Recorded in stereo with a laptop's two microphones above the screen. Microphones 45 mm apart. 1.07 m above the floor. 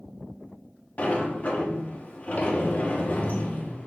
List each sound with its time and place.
1.0 s a sliding door: 35° left (ahead or behind), 1.7 m